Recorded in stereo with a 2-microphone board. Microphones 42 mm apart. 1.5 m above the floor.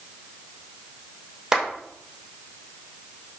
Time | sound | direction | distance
1.5 | a clap | 15° right (ahead or behind) | 5.5 m